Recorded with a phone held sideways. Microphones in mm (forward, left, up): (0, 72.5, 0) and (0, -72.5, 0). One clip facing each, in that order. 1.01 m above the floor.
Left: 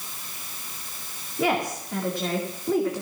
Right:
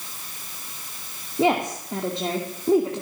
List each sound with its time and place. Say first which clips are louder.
1.4 s a woman speaking: right 4 dB; 25° right (ahead or behind), 2.5 m